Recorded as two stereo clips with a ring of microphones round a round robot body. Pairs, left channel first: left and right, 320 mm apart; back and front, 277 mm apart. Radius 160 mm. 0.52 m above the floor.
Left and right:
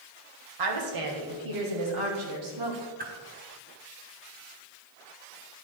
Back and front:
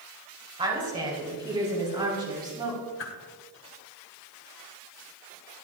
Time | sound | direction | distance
0.6 | a woman speaking | 75° right | 2.5 m
3.0 | a whoosh | 145° right | 1.6 m